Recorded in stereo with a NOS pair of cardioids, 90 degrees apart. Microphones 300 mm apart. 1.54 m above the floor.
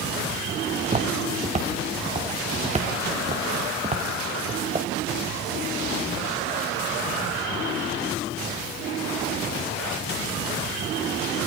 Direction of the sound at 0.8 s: 25° right.